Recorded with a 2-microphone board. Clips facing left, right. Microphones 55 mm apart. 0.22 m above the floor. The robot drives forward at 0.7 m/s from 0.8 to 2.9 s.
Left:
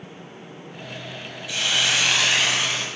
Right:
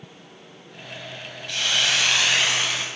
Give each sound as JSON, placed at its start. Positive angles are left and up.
{"t": 1.5, "sound": "a hiss", "side_deg": 5, "distance_m": 0.5}